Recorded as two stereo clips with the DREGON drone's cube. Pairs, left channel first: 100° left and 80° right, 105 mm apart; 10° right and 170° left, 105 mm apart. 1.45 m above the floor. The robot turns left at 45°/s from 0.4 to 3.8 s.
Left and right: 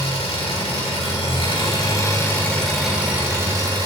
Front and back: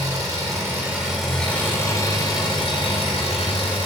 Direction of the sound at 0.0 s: 115° left.